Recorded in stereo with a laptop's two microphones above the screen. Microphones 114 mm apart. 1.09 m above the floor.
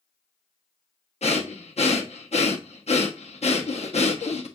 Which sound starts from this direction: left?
Breathing, at 1.2 s.